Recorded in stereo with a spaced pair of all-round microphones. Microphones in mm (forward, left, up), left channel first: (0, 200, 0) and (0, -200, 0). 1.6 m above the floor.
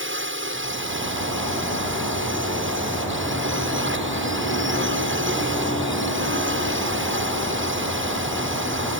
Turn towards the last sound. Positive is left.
turn(degrees=-30)  # may be behind; listen again after turning